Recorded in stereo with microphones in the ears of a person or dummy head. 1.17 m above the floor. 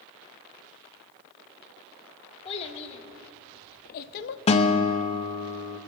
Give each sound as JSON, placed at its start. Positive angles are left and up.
{"t": 2.5, "sound": "a child speaking", "side_deg": 30, "distance_m": 1.6}
{"t": 4.5, "sound": "a guitar", "side_deg": 35, "distance_m": 0.7}